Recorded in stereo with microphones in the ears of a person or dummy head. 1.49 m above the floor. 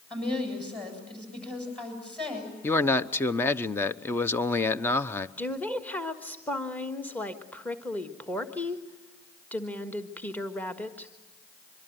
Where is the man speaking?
15° left (ahead or behind), 0.8 m.